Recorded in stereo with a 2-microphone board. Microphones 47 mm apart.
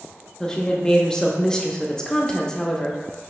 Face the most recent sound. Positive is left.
turn(degrees=15)  # may be behind; listen again after turning